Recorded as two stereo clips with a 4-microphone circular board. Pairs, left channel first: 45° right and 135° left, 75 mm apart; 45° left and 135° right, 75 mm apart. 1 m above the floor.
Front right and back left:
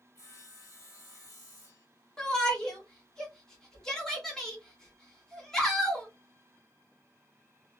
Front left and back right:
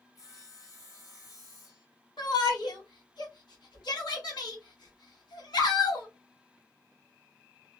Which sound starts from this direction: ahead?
Sawing, at 0.1 s.